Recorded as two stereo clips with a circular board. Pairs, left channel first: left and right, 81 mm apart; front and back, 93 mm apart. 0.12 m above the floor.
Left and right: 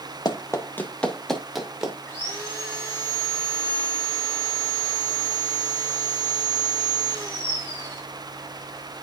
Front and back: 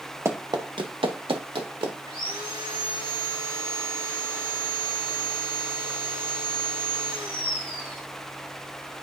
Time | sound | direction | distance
0.2 | running footsteps | 120° left | 1.3 m
2.1 | sawing | 155° left | 6 m